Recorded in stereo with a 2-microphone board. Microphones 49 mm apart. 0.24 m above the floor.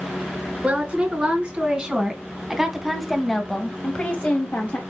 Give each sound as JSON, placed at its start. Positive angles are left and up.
{"t": 0.6, "sound": "a woman speaking", "side_deg": -25, "distance_m": 3.0}